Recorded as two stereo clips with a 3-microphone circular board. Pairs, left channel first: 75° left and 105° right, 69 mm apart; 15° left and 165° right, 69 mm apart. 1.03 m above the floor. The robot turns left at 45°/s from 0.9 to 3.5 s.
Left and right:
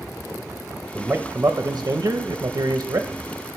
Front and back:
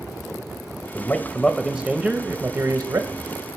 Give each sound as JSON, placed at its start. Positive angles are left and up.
{"t": 0.9, "sound": "a man speaking", "azimuth_deg": -35, "distance_m": 0.6}